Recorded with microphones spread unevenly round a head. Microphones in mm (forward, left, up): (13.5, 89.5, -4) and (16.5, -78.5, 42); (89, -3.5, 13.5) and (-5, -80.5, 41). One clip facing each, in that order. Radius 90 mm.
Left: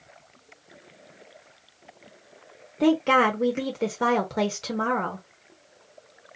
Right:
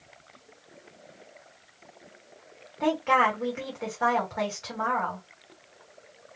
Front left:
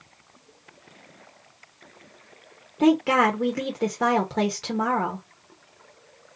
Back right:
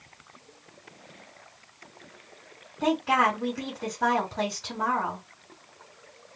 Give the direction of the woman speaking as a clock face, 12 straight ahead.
11 o'clock.